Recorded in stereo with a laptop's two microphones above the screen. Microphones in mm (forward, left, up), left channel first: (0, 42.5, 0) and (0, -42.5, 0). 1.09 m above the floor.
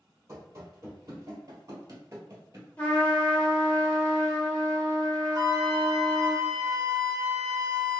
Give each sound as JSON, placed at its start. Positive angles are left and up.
{"t": 0.3, "sound": "running footsteps", "side_deg": -35, "distance_m": 1.7}
{"t": 2.8, "sound": "a trumpet", "side_deg": 20, "distance_m": 1.0}
{"t": 5.3, "sound": "a flute", "side_deg": -40, "distance_m": 1.2}